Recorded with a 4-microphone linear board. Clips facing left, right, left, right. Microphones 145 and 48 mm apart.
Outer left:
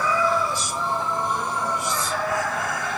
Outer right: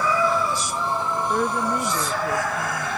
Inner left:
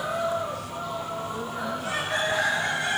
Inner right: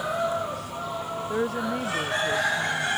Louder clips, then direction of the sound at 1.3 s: Outer right 4 dB, inner right 4 dB; 60° right (ahead or behind).